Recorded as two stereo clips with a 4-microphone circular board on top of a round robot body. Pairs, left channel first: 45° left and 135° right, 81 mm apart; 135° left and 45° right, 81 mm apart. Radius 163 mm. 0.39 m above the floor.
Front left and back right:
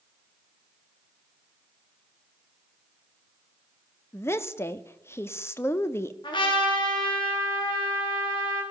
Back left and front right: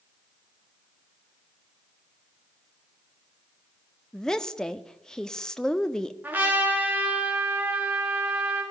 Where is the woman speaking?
60° left, 1.5 m.